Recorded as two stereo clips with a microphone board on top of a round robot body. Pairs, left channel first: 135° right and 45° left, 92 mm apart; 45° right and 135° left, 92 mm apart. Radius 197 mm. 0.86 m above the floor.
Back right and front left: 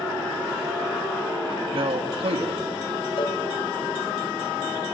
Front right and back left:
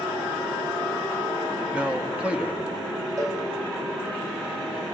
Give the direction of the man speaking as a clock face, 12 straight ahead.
10 o'clock.